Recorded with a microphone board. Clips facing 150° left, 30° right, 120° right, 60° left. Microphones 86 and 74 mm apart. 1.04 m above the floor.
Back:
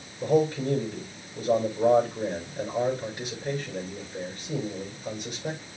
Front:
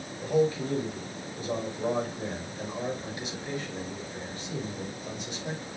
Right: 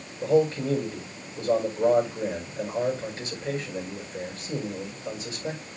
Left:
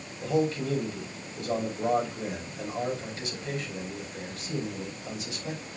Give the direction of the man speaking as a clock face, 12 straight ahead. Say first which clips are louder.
Back 2 dB, right 5 dB; 6 o'clock.